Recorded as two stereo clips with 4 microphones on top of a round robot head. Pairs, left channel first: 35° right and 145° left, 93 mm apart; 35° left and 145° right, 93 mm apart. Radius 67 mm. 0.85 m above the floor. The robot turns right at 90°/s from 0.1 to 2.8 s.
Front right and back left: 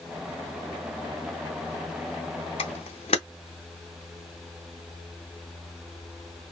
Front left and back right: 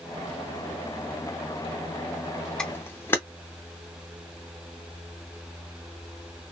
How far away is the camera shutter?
About 0.5 m.